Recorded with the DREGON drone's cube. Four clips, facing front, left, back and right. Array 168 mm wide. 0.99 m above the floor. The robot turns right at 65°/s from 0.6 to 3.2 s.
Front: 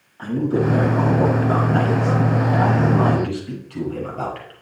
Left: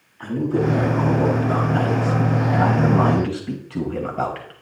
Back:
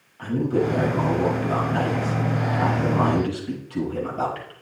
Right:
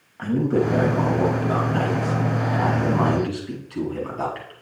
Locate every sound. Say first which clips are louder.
0.2 s a man speaking: right 1 dB, front 2 dB; 70° right, 6 m; by 4.5 s 95° left, 6 m